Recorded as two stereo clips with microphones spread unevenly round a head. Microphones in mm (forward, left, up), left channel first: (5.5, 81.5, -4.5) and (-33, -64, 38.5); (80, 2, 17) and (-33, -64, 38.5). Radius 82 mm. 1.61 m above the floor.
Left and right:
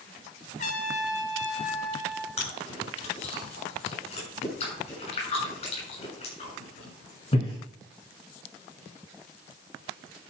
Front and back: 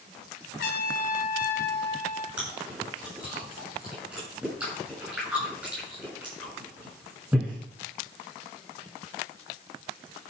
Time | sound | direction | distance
0.6 | a trumpet | 20° left | 2 m
2.4 | chewing | 125° left | 8 m